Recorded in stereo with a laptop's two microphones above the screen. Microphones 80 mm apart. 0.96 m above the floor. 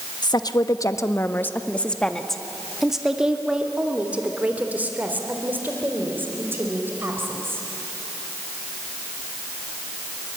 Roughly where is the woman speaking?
Left.